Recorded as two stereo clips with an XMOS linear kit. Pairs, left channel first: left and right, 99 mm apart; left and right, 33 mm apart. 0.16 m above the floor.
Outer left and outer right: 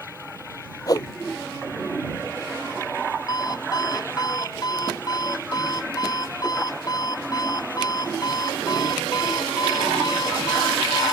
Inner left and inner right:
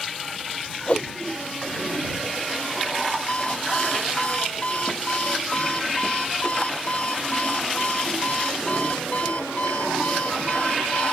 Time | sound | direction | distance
0.9 | a whoosh | 40° left (ahead or behind) | ?
3.3 | an alarm clock | 40° left (ahead or behind) | ?